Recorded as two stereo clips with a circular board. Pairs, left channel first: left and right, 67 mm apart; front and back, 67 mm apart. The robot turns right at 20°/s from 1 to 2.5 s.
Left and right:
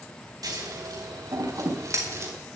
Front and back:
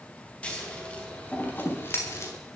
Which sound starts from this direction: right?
Scissors, at 0.4 s.